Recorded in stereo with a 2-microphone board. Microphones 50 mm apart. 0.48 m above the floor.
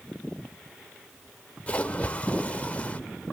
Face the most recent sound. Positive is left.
turn(degrees=25)  # may be behind; listen again after turning